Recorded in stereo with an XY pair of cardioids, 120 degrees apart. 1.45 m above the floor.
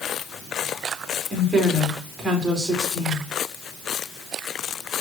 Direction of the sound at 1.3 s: 20° right.